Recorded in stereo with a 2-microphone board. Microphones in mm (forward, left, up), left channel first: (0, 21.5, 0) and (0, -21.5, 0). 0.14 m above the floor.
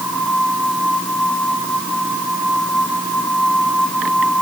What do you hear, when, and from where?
Only background noise.